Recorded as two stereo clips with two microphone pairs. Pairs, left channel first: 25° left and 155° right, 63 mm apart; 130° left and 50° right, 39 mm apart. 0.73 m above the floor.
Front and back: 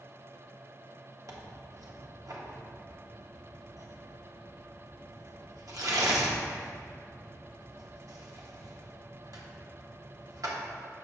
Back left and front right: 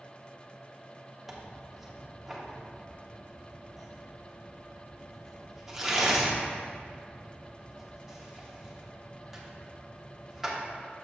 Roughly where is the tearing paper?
Behind right.